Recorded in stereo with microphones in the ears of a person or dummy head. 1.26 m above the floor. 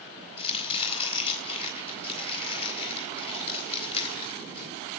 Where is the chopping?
35° left (ahead or behind), 5 m.